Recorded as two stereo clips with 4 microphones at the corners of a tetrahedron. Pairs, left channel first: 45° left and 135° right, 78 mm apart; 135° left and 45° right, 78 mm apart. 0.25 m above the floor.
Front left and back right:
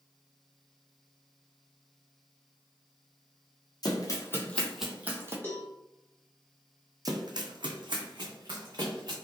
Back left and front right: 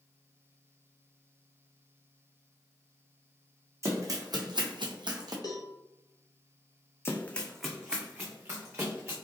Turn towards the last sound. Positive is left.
turn(degrees=-105)